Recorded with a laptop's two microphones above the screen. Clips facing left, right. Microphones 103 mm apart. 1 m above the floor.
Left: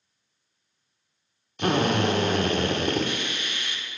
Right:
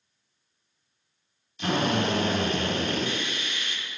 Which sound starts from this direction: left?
A drill, at 1.6 s.